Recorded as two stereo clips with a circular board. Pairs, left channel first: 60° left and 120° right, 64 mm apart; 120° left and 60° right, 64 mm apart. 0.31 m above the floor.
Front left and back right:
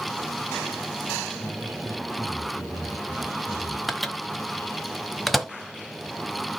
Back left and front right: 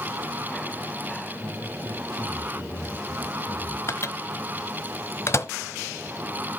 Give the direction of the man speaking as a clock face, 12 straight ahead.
6 o'clock.